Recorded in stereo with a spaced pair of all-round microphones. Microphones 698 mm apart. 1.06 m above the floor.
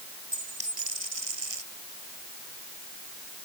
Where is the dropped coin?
50° right (ahead or behind).